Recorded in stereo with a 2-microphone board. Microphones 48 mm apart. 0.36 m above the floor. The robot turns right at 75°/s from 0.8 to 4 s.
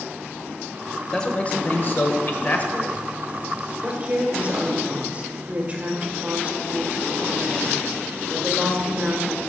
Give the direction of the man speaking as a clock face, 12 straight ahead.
11 o'clock.